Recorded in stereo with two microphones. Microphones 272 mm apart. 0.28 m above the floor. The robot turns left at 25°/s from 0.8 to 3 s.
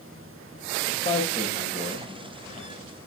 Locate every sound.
0.9 s a man speaking: 55° left, 8.5 m; by 2.1 s 25° left, 8.5 m